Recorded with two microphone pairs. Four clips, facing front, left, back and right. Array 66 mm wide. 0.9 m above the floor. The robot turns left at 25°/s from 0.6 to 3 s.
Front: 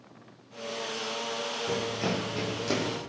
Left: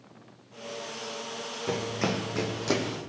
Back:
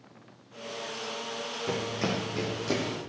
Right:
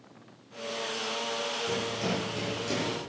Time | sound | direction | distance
1.7 | running footsteps | 120° left | 3 m